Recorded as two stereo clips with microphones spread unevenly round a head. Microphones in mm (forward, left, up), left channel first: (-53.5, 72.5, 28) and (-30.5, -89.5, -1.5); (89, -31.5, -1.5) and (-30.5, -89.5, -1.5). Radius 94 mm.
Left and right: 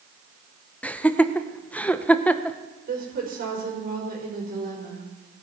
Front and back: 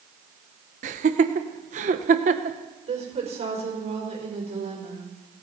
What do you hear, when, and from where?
0.8 s laughter: 175° left, 0.8 m
2.9 s a woman speaking: 120° right, 5 m